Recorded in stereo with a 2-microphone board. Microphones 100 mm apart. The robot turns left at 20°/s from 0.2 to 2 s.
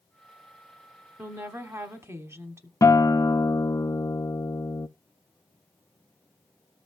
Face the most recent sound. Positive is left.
turn(degrees=35)  # may be behind; listen again after turning